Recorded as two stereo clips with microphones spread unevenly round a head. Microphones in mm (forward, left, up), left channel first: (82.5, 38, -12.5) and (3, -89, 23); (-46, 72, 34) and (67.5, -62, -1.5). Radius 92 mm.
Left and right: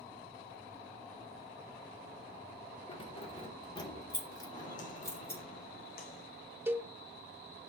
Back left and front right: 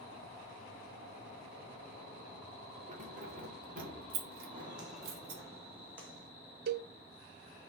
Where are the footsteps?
15° left, 3 m; by 6.3 s 40° left, 3.5 m.